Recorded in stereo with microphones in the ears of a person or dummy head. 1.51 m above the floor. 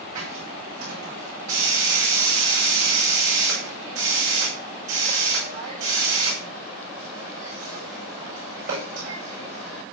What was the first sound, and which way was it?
A hiss, 50° right (ahead or behind).